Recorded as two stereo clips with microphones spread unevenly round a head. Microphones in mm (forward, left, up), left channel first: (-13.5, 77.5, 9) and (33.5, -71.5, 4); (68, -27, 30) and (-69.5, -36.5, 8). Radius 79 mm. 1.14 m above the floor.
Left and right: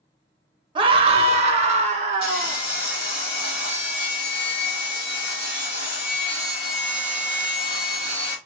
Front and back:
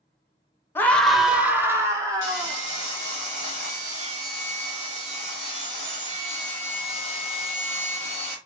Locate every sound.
0.8 s a scream: 70° right, 0.7 m; by 2.6 s 120° right, 1.6 m
2.2 s sawing: 140° left, 1.5 m